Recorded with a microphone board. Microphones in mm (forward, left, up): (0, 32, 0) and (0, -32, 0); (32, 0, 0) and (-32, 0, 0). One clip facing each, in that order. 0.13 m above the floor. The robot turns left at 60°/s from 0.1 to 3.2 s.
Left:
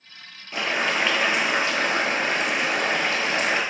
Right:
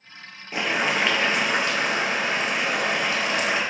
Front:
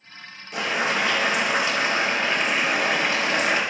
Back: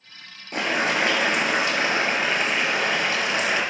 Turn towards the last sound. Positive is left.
turn(degrees=45)